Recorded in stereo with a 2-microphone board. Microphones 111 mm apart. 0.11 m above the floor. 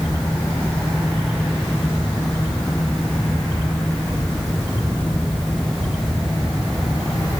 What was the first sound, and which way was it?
Only background noise.